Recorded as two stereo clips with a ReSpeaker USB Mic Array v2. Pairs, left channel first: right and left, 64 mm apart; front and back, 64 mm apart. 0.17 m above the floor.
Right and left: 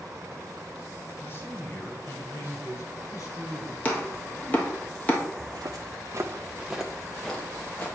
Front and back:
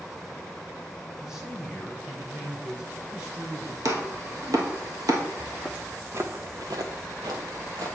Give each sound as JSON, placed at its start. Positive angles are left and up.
{"t": 1.2, "sound": "a man speaking", "azimuth_deg": -105, "distance_m": 1.3}
{"t": 3.9, "sound": "chopping", "azimuth_deg": -155, "distance_m": 1.2}
{"t": 5.4, "sound": "footsteps", "azimuth_deg": 90, "distance_m": 1.0}